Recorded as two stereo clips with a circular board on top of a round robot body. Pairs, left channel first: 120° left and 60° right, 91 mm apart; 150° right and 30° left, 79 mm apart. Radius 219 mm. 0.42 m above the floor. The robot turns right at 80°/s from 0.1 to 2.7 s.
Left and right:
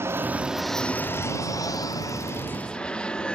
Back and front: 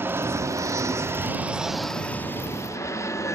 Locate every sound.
0.0 s an aircraft: 15° right; by 3.4 s 165° right